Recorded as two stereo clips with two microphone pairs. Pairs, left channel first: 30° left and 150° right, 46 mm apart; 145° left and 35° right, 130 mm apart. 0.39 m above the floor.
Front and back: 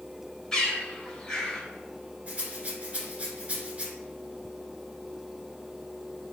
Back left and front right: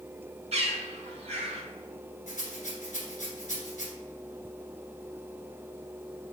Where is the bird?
45° right, 1.2 m.